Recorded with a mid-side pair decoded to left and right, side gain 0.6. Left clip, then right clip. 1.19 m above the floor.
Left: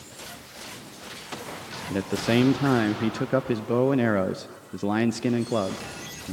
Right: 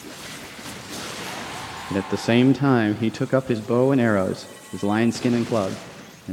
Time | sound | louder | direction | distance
1.9 | a man speaking | right 3 dB | 15° right | 0.6 m